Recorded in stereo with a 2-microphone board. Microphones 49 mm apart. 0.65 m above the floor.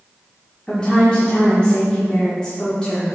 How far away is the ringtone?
I don't hear a ringtone.